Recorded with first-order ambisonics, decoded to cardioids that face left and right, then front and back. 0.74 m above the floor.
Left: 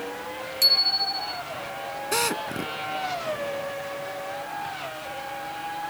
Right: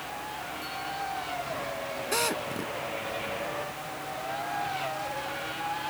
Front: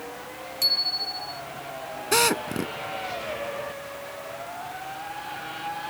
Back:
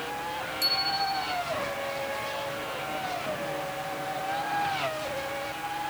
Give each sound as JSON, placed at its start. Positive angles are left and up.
{"t": 0.6, "sound": "a bicycle bell", "azimuth_deg": 75}
{"t": 2.1, "sound": "a drill", "azimuth_deg": 10}